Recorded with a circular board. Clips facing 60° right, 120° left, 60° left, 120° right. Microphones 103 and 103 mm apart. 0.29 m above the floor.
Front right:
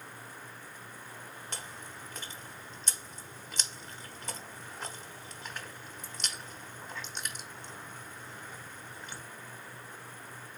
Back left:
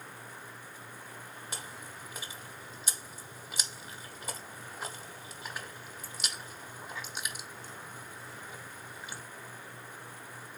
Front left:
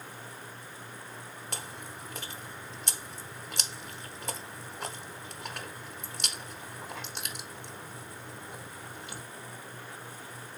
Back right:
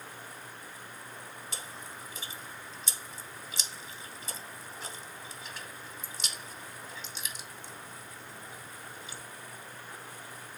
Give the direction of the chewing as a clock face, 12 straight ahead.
11 o'clock.